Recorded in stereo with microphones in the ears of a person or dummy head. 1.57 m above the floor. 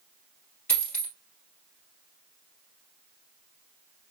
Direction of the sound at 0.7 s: 10° left (ahead or behind).